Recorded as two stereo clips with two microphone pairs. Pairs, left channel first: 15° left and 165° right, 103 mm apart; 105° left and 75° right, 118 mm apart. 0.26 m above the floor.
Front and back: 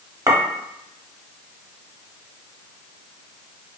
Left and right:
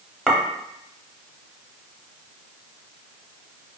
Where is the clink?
175° right, 0.6 m.